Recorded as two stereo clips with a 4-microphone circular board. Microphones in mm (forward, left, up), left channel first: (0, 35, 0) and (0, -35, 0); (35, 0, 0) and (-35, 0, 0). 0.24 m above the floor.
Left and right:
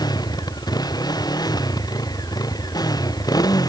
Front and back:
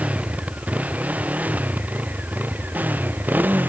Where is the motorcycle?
110° left; by 3.7 s 115° left.